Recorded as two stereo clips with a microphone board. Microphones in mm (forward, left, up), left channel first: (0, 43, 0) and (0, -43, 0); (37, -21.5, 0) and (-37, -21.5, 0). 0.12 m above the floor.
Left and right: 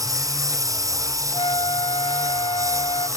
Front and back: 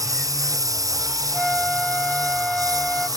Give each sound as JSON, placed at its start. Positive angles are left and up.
{"t": 0.0, "sound": "a lawn mower", "azimuth_deg": -140}
{"t": 1.3, "sound": "a flute", "azimuth_deg": 85}